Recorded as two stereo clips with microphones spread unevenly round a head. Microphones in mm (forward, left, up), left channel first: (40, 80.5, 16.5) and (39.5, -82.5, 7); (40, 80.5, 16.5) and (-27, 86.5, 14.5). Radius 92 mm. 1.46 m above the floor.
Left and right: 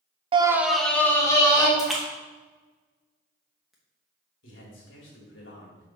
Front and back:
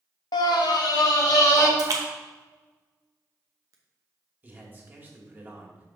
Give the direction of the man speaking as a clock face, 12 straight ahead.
8 o'clock.